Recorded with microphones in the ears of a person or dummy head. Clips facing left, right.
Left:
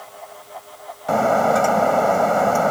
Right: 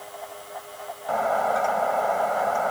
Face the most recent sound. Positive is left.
turn(degrees=55)  # may be behind; listen again after turning